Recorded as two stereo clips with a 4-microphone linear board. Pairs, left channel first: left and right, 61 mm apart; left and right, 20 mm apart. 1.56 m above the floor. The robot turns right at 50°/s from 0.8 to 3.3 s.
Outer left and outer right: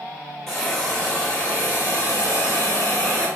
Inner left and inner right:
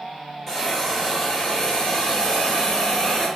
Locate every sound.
0.5 s a hiss: 10° left, 1.7 m; by 3.3 s 135° left, 1.7 m